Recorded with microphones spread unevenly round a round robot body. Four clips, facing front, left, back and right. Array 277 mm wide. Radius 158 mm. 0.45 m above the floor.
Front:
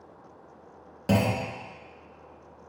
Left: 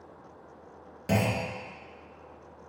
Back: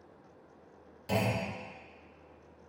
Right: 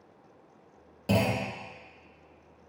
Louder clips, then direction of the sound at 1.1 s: Right 1 dB, front 6 dB; 5° right.